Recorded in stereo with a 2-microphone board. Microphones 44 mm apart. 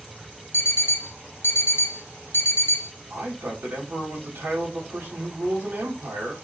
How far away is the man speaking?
About 2.5 m.